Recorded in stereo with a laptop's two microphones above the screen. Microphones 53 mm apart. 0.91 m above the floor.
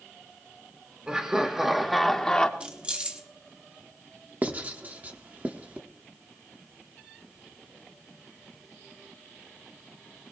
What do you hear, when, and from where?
1.1 s laughter: 20° right (ahead or behind), 1.3 m; by 2.5 s 15° left (ahead or behind), 1.0 m
2.6 s keys jangling: 25° right (ahead or behind), 1.1 m
4.4 s writing: 35° right (ahead or behind), 1.1 m